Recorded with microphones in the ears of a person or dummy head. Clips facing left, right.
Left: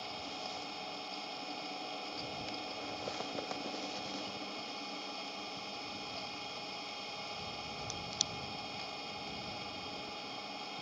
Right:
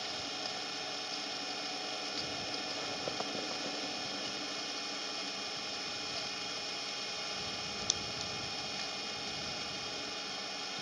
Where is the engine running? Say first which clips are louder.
Right 1 dB; 15° right (ahead or behind).